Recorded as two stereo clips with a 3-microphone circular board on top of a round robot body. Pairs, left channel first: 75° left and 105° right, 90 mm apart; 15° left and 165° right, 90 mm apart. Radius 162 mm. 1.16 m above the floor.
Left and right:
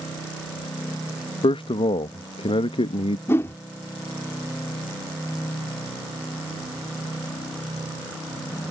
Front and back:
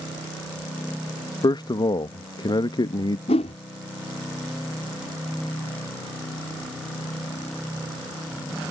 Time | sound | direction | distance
1.4 | a man speaking | 55° left | ?
3.3 | a whoosh | 15° left | ?